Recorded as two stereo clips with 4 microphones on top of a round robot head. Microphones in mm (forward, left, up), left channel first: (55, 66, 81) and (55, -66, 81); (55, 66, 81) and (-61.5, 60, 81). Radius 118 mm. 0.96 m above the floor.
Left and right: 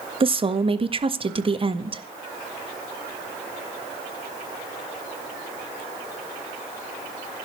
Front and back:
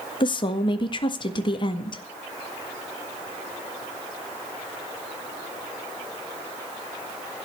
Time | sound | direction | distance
0.2 | a woman speaking | 45° right | 1.7 m